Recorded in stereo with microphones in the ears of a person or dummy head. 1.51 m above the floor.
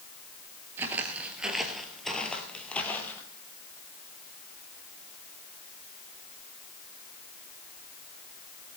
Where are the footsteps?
15° right (ahead or behind), 1.7 m; by 3.2 s 10° left (ahead or behind), 2.5 m.